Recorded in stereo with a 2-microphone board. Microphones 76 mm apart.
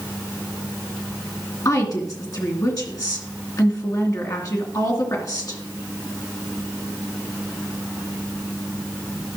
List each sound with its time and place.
1.6 s a woman speaking: 50° left (ahead or behind), 2.5 m